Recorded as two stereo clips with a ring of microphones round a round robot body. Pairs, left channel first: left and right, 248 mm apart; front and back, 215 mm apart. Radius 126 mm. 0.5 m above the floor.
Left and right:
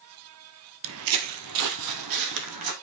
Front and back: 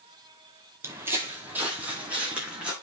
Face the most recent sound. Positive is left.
turn(degrees=-95)